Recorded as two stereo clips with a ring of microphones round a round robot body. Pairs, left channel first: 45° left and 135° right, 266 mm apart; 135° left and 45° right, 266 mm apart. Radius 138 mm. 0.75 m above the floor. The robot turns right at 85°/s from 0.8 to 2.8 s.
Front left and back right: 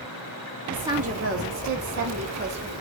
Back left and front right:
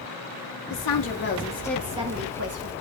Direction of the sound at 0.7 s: 140° left.